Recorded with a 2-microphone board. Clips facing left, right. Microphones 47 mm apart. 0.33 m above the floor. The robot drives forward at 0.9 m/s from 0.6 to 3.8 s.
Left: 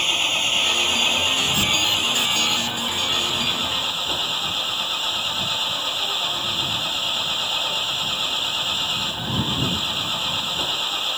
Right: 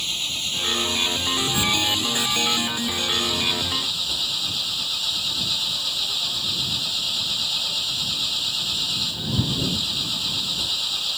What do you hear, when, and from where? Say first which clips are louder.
0.0 s an engine running: left 7 dB; 45° left (ahead or behind); by 11.2 s 35° left (ahead or behind)